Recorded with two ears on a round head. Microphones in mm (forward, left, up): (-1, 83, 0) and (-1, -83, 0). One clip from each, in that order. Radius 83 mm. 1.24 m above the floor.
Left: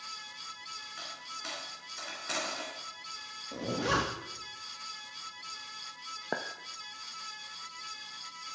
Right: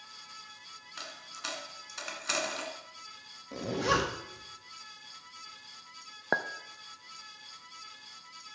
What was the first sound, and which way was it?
A dropped coin, 35° right (ahead or behind).